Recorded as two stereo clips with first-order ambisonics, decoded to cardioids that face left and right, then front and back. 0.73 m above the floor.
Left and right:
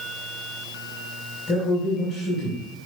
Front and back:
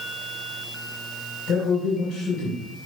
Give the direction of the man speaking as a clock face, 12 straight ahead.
11 o'clock.